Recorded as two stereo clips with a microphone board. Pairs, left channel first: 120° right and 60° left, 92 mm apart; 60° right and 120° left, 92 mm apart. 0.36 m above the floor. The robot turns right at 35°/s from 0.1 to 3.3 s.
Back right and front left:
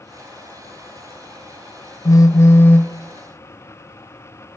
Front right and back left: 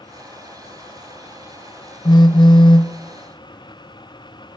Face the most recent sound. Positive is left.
turn(degrees=-40)